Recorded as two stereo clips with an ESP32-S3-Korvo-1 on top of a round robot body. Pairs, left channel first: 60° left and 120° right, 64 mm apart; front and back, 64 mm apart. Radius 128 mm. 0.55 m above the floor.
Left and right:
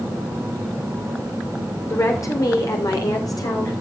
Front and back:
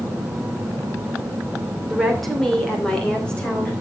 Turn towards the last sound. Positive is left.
turn(degrees=70)